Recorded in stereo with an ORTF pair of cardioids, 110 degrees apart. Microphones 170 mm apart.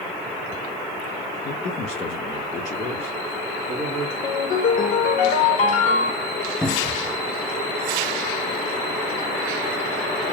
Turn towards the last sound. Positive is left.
turn(degrees=0)